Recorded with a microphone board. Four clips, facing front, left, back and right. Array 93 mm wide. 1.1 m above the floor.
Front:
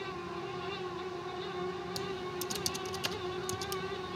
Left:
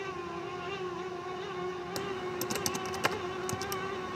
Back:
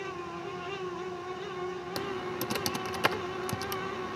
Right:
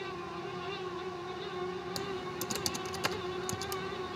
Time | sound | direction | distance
2.0 | typing on a keyboard | 160° left | ?